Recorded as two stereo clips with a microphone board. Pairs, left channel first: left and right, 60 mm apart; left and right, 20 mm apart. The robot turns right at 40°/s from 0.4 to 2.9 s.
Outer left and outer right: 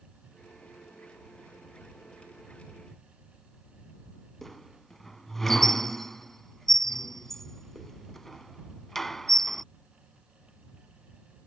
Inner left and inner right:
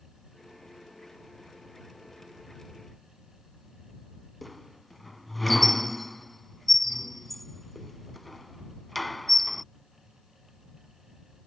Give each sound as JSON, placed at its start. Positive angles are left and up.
{"t": 4.4, "sound": "a squeak", "side_deg": 5}